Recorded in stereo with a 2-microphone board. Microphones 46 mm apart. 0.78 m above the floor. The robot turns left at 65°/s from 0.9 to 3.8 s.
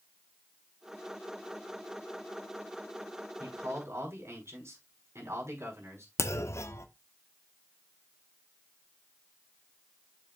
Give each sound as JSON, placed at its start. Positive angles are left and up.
{"t": 3.4, "sound": "a man speaking", "side_deg": -85, "distance_m": 6.0}
{"t": 6.2, "sound": "a clunk", "side_deg": 75, "distance_m": 1.1}